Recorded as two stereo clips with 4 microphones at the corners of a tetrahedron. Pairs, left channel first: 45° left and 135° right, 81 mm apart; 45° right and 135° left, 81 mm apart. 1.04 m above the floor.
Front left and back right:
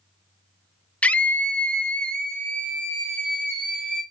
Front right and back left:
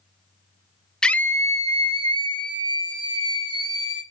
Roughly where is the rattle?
I don't hear a rattle.